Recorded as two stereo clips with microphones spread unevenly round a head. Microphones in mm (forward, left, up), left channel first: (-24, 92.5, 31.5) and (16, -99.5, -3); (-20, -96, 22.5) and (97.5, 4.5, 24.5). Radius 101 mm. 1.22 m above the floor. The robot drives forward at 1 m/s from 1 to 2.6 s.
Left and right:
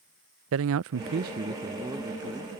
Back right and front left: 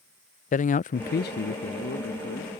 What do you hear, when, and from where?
0.5 s a man speaking: 100° right; by 2.5 s 165° right